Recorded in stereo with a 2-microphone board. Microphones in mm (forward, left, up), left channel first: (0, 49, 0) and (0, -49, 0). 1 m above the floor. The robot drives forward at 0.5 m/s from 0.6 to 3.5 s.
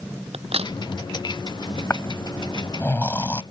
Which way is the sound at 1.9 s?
25° left (ahead or behind).